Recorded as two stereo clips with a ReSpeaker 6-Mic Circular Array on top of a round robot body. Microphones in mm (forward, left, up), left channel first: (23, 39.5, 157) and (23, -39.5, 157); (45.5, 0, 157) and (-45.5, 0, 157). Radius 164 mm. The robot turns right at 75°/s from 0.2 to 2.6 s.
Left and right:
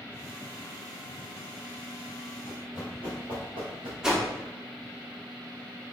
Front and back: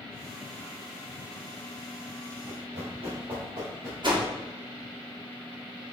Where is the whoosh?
170° right, 1.3 m.